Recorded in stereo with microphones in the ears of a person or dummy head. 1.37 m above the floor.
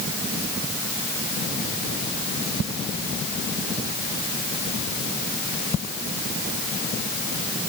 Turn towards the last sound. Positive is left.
No sound to turn to.